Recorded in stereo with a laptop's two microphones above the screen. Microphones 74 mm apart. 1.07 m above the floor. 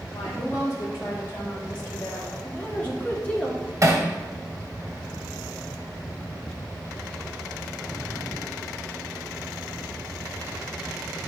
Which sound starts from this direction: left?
A woman speaking, at 0.1 s.